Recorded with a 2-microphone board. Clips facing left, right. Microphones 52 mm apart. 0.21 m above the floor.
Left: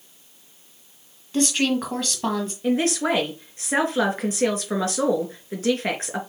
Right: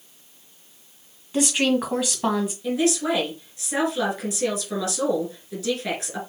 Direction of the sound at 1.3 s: 5° right (ahead or behind).